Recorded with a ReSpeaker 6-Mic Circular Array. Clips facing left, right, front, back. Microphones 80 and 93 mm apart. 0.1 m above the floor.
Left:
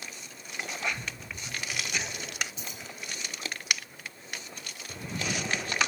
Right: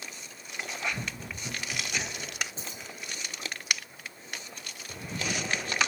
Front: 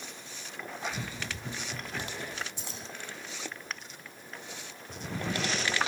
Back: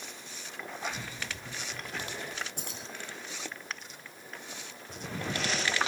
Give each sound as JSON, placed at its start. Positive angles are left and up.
{"t": 0.9, "sound": "running footsteps", "azimuth_deg": -75, "distance_m": 1.2}
{"t": 2.6, "sound": "keys jangling", "azimuth_deg": -145, "distance_m": 4.0}